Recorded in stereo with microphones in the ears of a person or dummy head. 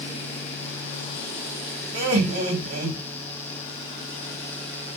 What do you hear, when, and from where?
1.9 s laughter: 45° right (ahead or behind), 2.5 m